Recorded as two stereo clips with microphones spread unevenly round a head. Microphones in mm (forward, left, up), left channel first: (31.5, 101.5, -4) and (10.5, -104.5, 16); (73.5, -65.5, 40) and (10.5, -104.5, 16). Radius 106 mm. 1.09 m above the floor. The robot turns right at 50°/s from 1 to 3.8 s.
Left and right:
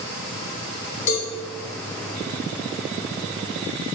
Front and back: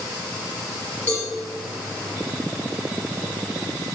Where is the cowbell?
90° left, 1.5 m; by 1.3 s 100° left, 1.5 m.